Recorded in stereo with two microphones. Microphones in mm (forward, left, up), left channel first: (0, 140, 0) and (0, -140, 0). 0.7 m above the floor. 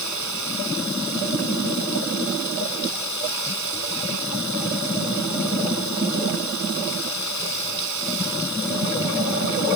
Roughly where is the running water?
Left.